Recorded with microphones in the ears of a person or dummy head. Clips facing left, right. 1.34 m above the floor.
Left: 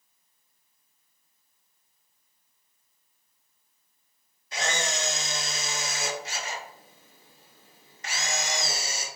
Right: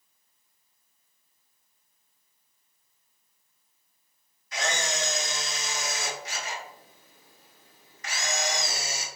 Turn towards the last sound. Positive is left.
turn(degrees=35)  # may be behind; listen again after turning